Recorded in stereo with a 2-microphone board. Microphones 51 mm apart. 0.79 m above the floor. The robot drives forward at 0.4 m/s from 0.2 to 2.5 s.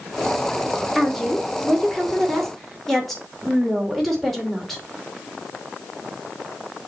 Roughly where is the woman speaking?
Centre.